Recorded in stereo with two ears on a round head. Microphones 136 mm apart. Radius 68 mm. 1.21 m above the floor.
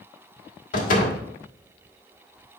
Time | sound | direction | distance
0.7 | a door slam | 55° left (ahead or behind) | 1.9 m